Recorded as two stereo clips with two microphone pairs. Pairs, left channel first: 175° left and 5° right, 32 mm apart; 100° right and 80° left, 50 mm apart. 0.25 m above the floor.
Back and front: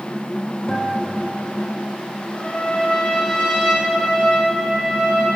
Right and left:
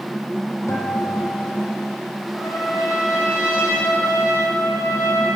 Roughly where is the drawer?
I don't hear a drawer.